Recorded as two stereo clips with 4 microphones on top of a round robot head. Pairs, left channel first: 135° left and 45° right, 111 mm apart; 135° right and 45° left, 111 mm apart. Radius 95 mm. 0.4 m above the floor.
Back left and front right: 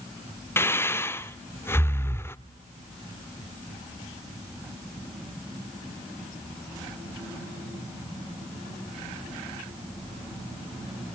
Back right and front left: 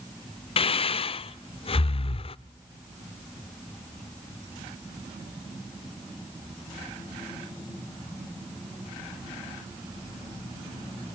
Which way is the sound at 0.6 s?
160° right.